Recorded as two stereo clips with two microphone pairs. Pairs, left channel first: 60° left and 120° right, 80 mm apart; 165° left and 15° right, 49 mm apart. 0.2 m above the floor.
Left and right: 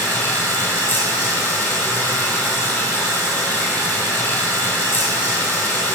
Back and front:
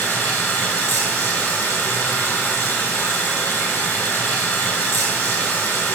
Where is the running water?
125° left, 2.5 m.